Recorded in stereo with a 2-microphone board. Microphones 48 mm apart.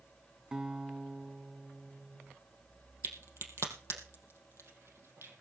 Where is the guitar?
15° right (ahead or behind), 1.3 m.